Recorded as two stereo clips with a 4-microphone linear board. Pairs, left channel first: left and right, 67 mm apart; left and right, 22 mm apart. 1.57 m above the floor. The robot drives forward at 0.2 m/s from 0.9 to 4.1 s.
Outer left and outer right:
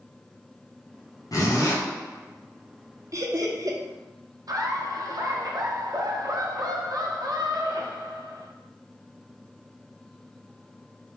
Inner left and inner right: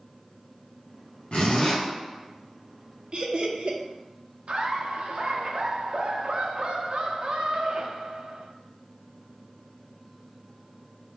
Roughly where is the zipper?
Left.